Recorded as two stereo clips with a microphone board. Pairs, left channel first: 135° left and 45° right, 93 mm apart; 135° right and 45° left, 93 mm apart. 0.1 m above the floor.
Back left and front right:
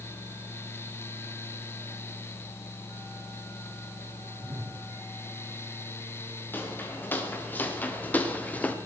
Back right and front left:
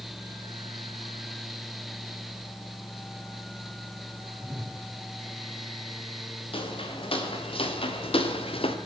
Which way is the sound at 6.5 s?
155° right.